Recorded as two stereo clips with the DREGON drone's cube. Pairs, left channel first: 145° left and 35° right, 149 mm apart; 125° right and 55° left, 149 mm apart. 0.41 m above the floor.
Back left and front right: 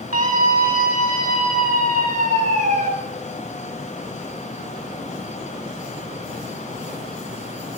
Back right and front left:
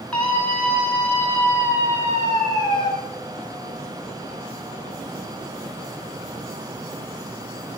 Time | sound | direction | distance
0.1 | a scream | 40° right | 4 m